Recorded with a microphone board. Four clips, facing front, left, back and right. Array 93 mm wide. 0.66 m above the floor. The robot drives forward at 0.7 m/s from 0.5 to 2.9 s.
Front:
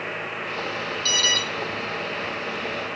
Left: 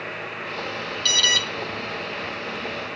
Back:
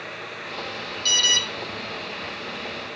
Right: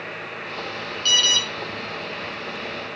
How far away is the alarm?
About 1.2 m.